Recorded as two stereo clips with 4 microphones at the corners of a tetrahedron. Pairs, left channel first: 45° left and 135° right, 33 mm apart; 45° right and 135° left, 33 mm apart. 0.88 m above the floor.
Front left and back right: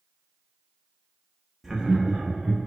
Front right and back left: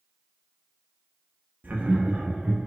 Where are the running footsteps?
No running footsteps in this recording.